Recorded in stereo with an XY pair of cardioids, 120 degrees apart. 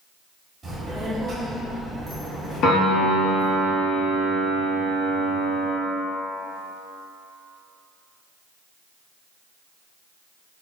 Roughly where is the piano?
Ahead left.